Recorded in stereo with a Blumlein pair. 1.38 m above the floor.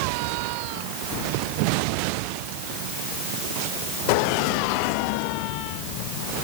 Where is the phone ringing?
I don't hear a phone ringing.